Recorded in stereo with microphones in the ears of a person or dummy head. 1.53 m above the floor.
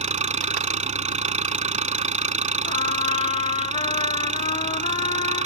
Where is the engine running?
45° right (ahead or behind).